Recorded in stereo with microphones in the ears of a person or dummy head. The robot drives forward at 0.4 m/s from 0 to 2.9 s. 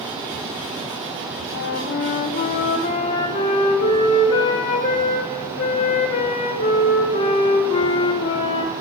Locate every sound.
1.5 s a flute: 70° left (ahead or behind), 0.5 m; by 8.7 s 40° left (ahead or behind), 0.8 m